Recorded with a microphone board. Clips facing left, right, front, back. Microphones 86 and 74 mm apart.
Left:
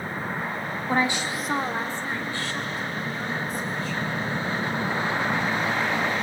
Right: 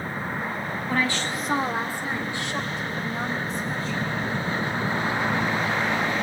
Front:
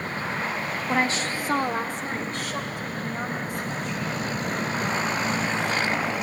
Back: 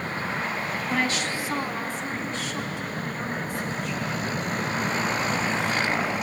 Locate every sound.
0.9 s a woman speaking: 55° left, 1.2 m; by 4.2 s 30° right, 4.5 m